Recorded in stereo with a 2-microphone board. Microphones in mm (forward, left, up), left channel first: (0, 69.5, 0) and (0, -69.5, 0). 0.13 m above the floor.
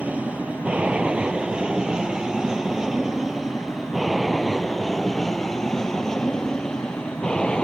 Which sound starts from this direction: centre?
An aircraft, at 0.0 s.